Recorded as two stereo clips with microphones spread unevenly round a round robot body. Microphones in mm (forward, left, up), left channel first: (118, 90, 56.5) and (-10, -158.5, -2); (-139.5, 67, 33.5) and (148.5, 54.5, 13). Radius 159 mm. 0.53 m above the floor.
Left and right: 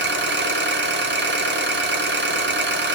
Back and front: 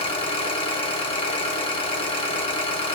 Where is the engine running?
110° right, 1.0 m.